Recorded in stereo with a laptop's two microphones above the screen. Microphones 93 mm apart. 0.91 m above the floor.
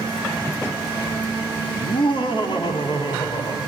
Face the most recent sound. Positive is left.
turn(degrees=55)  # may be behind; listen again after turning